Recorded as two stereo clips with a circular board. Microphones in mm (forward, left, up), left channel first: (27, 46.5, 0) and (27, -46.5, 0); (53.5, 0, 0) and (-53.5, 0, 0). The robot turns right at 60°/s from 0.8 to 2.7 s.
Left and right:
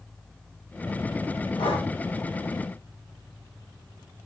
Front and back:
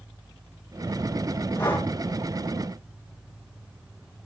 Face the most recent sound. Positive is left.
turn(degrees=135)